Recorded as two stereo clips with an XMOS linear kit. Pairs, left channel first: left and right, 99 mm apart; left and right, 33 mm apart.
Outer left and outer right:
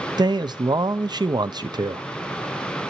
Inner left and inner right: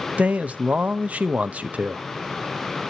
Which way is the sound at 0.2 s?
45° right (ahead or behind).